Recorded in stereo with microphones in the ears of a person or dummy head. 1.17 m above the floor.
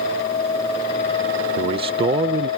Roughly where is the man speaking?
Right.